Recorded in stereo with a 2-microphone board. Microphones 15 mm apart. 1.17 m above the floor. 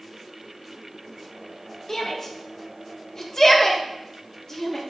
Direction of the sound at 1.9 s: 35° left (ahead or behind).